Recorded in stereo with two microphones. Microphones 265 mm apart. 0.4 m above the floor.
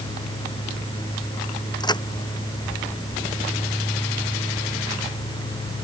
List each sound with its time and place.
1.8 s a crack: 15° left (ahead or behind)